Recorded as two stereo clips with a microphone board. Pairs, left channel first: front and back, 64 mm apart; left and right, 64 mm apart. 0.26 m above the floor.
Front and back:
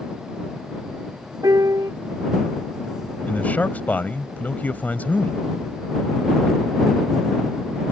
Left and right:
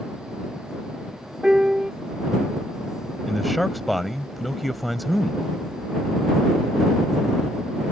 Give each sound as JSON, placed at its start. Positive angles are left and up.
{"t": 1.4, "sound": "a piano", "azimuth_deg": -165}
{"t": 3.3, "sound": "a man speaking", "azimuth_deg": 0}